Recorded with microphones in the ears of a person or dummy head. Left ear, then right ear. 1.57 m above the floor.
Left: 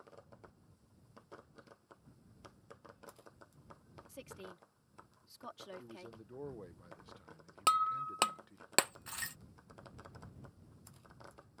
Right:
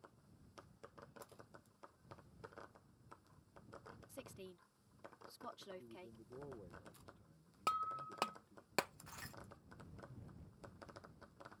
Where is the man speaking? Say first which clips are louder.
Left 5 dB; 55° left (ahead or behind).